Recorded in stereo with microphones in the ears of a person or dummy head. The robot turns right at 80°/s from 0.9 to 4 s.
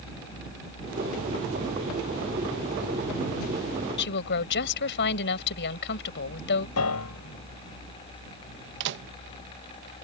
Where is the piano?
85° left.